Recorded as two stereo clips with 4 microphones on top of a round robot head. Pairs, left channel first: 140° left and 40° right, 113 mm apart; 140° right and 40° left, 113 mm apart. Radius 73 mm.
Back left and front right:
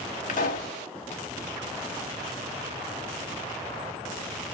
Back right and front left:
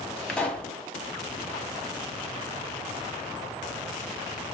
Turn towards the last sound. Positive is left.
turn(degrees=140)